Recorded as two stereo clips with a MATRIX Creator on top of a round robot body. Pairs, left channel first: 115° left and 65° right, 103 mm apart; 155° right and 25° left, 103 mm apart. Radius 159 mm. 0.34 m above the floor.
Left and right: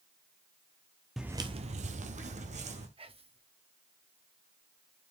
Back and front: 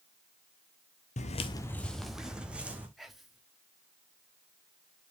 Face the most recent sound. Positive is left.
turn(degrees=-65)